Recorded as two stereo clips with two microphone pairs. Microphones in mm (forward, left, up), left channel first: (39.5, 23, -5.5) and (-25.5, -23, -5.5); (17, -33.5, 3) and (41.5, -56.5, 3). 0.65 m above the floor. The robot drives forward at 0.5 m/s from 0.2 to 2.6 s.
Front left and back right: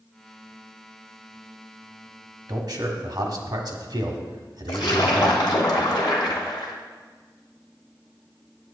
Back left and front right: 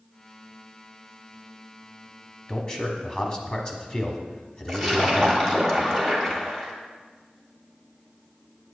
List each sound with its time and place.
2.5 s a man speaking: 165° right, 1.1 m
4.7 s a splash: 55° left, 1.3 m